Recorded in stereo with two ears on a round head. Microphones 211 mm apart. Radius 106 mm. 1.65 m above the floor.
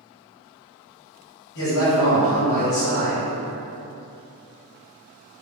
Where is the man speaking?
70° left (ahead or behind), 1.5 m.